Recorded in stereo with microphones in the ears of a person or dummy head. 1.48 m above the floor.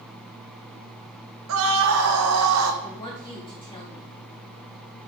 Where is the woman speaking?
20° left (ahead or behind), 2.5 m.